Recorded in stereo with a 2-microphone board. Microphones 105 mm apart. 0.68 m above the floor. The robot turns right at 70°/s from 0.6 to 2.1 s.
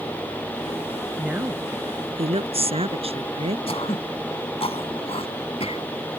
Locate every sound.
1.2 s a woman speaking: 175° right; by 3.6 s 110° right
3.7 s throat clearing: 70° left (ahead or behind)